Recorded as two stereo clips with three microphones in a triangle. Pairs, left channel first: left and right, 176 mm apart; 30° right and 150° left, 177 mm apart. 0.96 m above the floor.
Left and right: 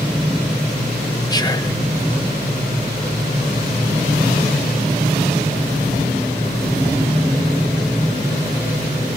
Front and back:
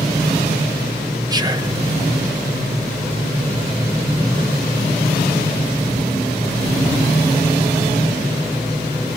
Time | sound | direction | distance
1.3 | whispering | 120° left | 0.9 m